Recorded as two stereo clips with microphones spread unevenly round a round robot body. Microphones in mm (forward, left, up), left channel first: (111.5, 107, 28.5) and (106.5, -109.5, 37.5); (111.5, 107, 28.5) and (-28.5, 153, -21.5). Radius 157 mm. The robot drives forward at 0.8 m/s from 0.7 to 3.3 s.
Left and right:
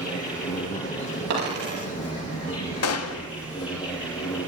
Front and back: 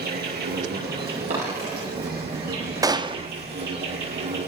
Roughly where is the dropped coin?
Behind right.